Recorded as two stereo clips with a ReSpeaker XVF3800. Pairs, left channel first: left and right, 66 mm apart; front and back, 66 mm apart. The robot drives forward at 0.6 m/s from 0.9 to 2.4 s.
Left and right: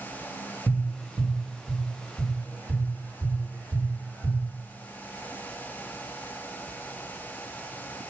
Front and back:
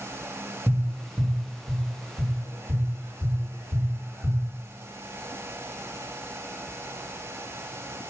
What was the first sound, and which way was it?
Tapping, 115° right.